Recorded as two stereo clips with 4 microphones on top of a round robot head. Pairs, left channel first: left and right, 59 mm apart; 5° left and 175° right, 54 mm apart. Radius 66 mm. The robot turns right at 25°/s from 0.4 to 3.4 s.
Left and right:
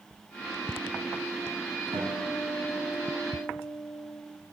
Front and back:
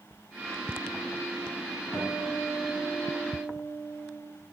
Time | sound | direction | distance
1.9 | a guitar | 100° right | 2.5 m